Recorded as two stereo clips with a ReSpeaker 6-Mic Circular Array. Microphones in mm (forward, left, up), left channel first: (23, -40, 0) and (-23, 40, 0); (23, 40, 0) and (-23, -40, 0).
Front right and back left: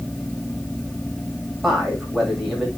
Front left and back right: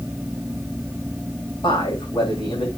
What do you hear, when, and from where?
1.6 s a man speaking: 30° left, 7.5 m